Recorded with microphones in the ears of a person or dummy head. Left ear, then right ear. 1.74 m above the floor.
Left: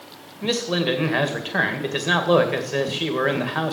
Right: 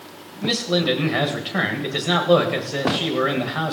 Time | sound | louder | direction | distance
0.4 | a man speaking | right 2 dB | 15° left (ahead or behind) | 1.9 m